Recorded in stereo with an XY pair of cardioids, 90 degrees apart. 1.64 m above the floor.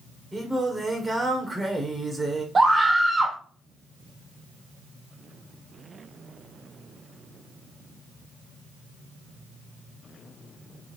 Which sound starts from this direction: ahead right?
A scream, at 2.5 s.